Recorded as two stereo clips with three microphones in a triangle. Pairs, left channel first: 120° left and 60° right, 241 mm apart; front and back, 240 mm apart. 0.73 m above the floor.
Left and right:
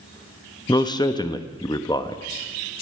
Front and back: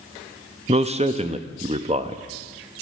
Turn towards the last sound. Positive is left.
turn(degrees=170)